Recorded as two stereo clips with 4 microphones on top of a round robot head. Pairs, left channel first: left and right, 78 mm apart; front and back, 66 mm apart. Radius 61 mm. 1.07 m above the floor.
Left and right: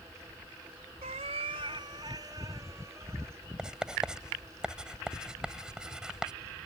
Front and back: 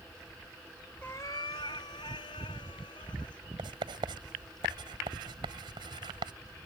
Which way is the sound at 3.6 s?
170° right.